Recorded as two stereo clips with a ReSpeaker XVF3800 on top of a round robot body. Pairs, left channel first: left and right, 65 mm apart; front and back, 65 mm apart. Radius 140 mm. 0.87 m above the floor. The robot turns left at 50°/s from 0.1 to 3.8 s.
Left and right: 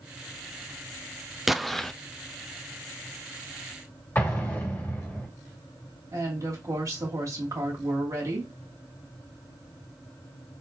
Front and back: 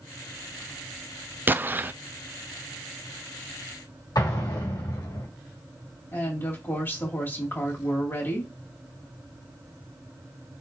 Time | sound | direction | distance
1.5 | an explosion | 170° right | 0.5 m
4.2 | an explosion | 25° left | 2.5 m
6.1 | a woman speaking | 55° right | 2.5 m